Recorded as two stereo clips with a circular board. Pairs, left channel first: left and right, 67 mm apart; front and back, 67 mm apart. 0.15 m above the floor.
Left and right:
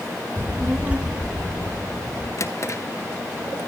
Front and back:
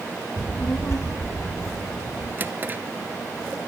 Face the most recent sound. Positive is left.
turn(degrees=125)